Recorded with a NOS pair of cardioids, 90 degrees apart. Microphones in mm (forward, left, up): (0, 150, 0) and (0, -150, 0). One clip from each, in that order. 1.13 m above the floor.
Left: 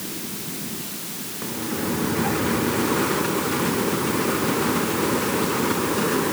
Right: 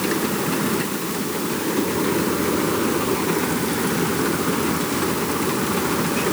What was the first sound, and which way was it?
Only background noise.